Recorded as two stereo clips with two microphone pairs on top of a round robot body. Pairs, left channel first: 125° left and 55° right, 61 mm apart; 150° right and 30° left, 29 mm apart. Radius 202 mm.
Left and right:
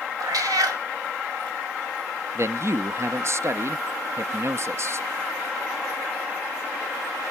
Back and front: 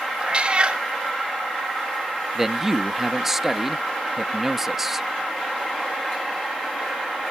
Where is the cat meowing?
30° right, 1.8 m.